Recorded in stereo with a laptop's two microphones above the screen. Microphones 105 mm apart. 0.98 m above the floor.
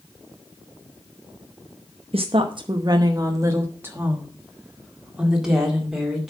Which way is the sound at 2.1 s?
65° right (ahead or behind).